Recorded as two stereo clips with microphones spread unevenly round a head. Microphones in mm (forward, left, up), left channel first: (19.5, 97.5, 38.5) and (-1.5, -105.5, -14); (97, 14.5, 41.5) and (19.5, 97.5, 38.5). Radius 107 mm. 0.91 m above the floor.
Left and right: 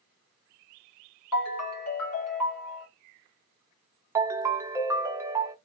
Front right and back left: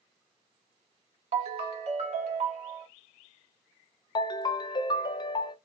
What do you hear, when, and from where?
1.3 s a ringtone: 105° left, 1.6 m
4.2 s a ringtone: 10° right, 0.6 m